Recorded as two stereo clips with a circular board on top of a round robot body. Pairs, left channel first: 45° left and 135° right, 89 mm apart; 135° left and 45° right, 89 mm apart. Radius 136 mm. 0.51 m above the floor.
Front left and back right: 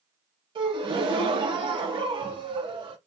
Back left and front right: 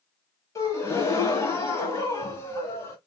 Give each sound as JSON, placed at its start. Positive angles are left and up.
{"t": 0.6, "sound": "a gasp", "azimuth_deg": -165, "distance_m": 0.8}